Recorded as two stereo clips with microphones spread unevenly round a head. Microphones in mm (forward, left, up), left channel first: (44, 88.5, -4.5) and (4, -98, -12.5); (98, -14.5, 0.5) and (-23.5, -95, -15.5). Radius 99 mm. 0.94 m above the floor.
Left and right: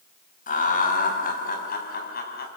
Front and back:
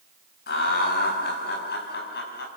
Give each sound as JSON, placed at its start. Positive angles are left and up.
{"t": 0.5, "sound": "laughter", "azimuth_deg": 30, "distance_m": 5.5}